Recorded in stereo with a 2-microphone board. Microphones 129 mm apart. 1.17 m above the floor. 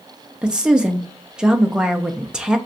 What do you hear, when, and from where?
0.4 s a woman speaking: 5° right (ahead or behind), 0.6 m